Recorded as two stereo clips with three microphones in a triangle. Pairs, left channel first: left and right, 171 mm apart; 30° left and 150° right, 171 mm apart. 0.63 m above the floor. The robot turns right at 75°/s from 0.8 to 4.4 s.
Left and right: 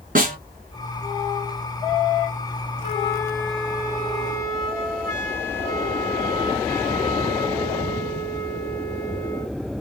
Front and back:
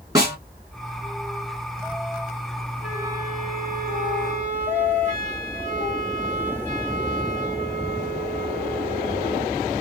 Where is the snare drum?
85° right, 1.6 m.